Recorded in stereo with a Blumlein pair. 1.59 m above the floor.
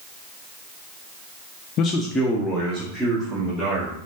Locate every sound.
1.8 s a man speaking: 35° left, 0.5 m; by 4.0 s 25° right, 2.5 m